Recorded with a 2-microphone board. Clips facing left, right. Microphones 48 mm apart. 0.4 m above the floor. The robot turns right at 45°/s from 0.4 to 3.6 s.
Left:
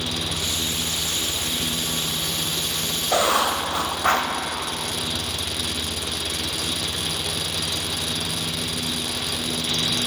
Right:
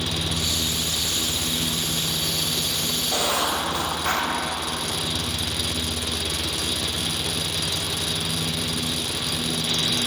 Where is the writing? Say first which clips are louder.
Left 5 dB; 70° left (ahead or behind), 0.5 m; by 4.3 s 75° left (ahead or behind), 0.5 m.